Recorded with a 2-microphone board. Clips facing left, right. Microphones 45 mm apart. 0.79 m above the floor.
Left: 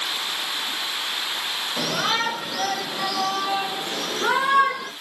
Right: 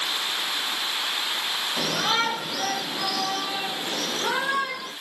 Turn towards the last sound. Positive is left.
turn(degrees=35)  # may be behind; listen again after turning